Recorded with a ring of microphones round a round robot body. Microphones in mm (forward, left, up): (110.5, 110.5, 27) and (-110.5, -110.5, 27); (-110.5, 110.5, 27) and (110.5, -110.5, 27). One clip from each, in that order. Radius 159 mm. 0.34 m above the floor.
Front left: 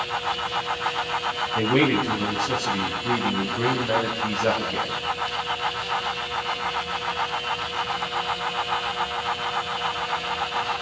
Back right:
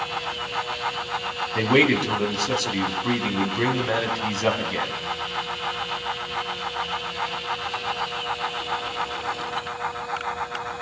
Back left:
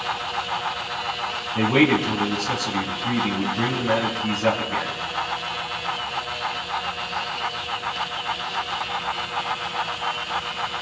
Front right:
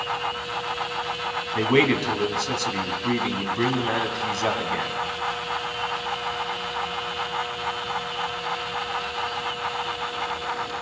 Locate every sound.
1.6 s a man speaking: 100° right, 3 m